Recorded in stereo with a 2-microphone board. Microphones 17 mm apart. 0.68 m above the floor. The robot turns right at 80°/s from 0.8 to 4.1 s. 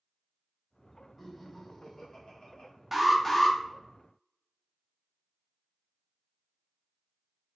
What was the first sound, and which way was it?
Laughter, 10° right.